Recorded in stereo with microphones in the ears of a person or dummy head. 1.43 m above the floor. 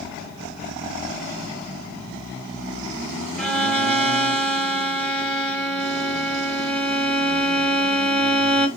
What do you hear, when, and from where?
3.4 s a violin: centre (ahead or behind), 1.4 m